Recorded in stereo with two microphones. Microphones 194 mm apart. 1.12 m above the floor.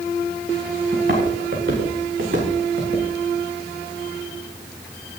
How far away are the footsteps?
About 8 m.